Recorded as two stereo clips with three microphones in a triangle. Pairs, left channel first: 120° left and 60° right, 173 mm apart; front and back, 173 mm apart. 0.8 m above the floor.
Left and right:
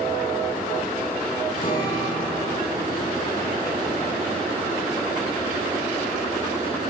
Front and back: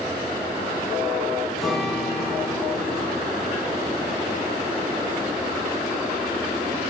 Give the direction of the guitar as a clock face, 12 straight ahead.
9 o'clock.